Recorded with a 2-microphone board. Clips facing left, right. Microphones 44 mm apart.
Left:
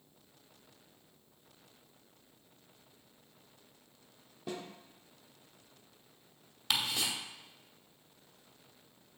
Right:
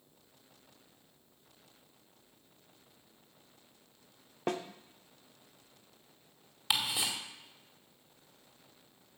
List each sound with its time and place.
4.5 s a snare drum: 70° right (ahead or behind), 0.8 m
6.7 s ticking: 10° right (ahead or behind), 2 m